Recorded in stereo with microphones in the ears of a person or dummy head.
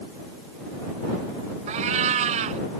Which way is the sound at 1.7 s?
45° right (ahead or behind).